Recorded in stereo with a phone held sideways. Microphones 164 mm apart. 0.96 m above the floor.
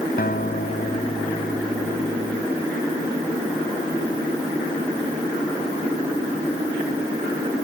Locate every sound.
0.2 s a guitar: 65° left (ahead or behind)